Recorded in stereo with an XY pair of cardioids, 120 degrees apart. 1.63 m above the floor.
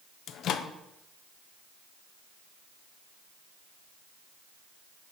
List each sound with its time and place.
0.3 s a microwave: 65° left, 0.7 m